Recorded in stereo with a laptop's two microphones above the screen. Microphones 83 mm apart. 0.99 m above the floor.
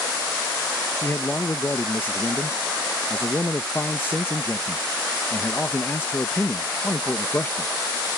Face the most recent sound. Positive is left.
turn(degrees=25)  # may be behind; listen again after turning